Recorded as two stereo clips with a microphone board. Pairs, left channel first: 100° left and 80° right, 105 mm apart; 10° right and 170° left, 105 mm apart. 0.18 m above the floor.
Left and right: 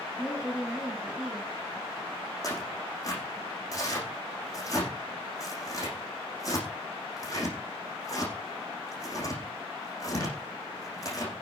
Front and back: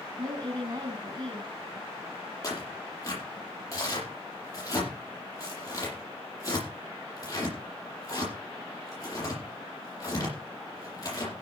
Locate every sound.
0.2 s a woman speaking: 160° right, 2.5 m
2.4 s tearing paper: 45° left, 7.5 m